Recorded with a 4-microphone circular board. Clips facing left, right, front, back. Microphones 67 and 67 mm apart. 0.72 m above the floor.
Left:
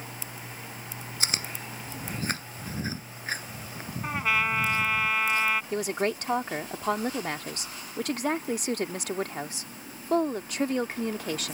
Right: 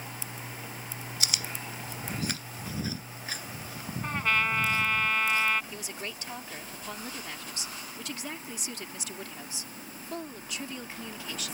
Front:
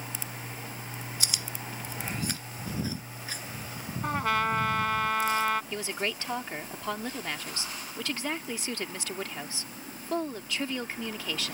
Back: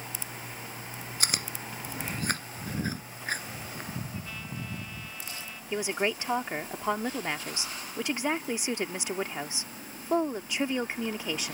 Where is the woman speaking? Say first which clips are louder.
Left 12 dB, back 4 dB; 110° left.